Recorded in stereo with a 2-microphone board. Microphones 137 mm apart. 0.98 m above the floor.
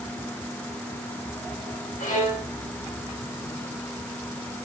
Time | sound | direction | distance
2.0 | a violin | 70° left (ahead or behind) | 3.5 m